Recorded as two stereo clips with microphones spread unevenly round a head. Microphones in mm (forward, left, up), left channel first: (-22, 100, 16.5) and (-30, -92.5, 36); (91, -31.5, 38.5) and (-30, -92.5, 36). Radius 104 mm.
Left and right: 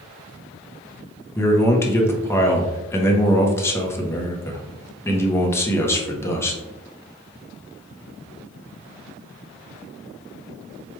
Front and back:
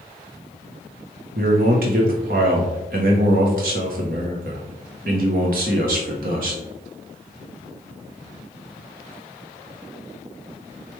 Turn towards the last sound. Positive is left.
turn(degrees=165)